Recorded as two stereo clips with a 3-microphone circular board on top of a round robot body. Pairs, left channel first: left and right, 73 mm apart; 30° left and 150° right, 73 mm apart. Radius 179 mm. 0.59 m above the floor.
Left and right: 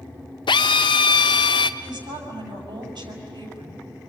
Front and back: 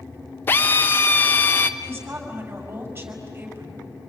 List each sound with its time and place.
0.5 s a drill: 95° left, 0.6 m
1.8 s a woman speaking: 90° right, 6 m